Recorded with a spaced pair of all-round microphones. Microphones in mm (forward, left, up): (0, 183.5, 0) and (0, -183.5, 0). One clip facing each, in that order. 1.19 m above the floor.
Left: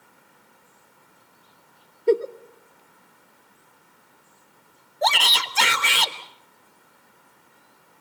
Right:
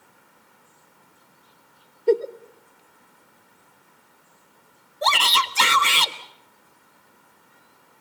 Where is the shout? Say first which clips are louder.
Left 1 dB; 10° right (ahead or behind), 1.4 m.